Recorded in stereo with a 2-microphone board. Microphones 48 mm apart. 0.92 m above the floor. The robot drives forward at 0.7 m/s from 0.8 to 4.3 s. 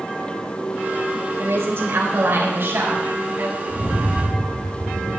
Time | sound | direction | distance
1.4 | a woman speaking | 60° right (ahead or behind) | 3 m
3.7 | a rattle | 90° left | 6.5 m